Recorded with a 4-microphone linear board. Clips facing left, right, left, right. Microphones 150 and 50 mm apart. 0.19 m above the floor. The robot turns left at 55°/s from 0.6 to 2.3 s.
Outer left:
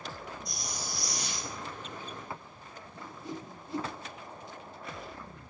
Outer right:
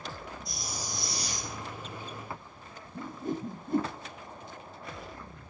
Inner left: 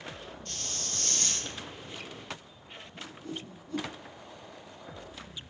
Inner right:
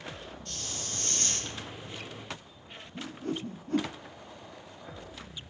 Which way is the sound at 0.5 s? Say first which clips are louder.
Outer right 1 dB, even; straight ahead.